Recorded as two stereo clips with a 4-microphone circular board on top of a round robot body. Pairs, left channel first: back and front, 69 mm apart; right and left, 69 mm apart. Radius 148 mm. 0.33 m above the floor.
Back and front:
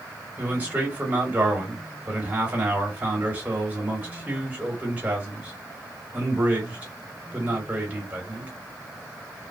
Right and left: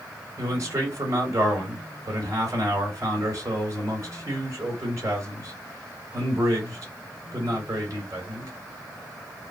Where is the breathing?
No breathing in this recording.